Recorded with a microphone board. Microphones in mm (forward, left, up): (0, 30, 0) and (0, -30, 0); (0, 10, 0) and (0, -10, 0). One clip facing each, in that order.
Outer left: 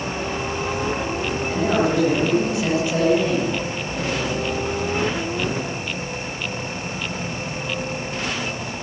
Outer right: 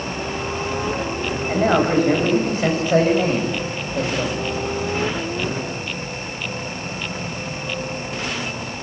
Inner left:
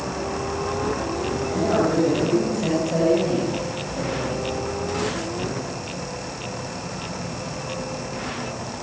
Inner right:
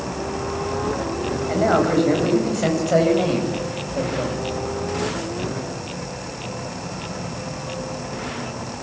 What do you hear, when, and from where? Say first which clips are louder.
1.5 s a man speaking: outer right 3 dB, inner right 3 dB; 40° right (ahead or behind), 8.5 m; by 4.5 s 55° right (ahead or behind), 7.5 m